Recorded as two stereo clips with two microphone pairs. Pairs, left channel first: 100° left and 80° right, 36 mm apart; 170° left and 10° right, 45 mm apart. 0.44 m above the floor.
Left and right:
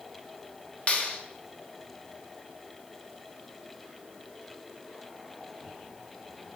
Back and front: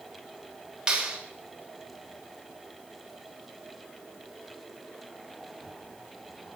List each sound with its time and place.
0.9 s a clap: 65° left, 1.9 m